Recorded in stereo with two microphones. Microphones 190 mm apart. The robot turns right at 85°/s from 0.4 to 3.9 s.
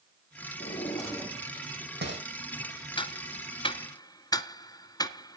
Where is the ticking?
25° left (ahead or behind), 0.7 m; by 5.4 s 20° left (ahead or behind), 0.7 m.